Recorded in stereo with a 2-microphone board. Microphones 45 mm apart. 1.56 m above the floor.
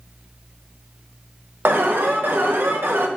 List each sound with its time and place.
1.6 s an alarm: 55° right (ahead or behind), 1.3 m